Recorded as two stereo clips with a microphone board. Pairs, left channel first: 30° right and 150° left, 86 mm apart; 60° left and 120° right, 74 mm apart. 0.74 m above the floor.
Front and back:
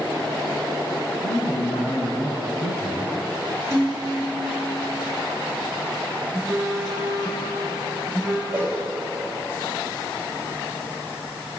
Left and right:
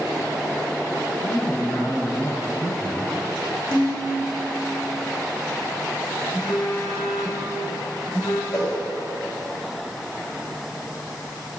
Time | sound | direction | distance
1.2 | a man speaking | 5° right | 5 m
3.7 | dishes clattering | 90° left | 6.5 m
6.3 | a phone buzzing | 65° left | 3.5 m
8.5 | a whoosh | 85° left | 4.5 m